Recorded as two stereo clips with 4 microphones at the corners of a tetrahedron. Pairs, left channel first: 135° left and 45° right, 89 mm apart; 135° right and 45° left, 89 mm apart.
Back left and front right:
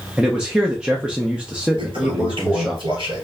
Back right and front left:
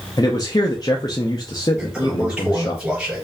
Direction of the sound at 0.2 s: 120° right.